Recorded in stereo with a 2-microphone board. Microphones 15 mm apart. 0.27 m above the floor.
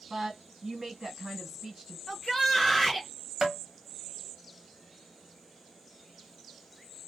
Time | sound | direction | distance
0.1 | a woman speaking | 45° right (ahead or behind) | 1.6 m
2.1 | a shout | 15° left (ahead or behind) | 0.9 m
3.4 | tapping | 30° right (ahead or behind) | 0.9 m